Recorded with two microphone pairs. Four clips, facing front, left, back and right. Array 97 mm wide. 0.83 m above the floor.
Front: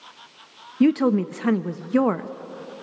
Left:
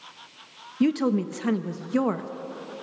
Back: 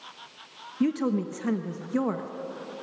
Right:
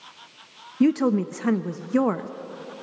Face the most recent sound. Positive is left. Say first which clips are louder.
# right 3 dB, front 7 dB
turn(degrees=-5)